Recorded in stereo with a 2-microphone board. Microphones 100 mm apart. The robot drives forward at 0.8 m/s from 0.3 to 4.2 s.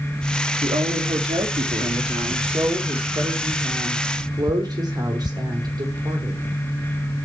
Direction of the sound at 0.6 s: 85° right.